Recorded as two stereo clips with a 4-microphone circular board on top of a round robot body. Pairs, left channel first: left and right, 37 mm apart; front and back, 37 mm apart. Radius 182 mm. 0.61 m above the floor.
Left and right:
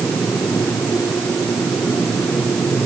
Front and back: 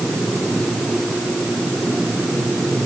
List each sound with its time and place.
Only background noise.